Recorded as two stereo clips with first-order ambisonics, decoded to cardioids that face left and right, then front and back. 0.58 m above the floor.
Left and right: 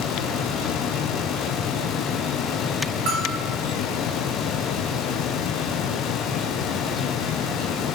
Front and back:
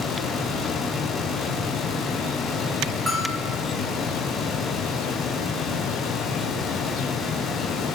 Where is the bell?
100° right, 2.5 m.